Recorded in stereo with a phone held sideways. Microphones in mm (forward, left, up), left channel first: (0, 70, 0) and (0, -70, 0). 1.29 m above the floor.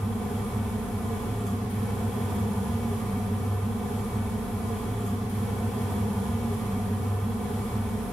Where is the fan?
5° left (ahead or behind), 1.1 m.